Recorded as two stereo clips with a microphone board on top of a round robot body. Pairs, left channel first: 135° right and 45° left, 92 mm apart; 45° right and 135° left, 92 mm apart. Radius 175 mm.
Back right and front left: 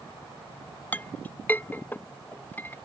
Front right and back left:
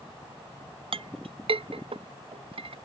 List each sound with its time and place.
0.9 s a clink: 155° left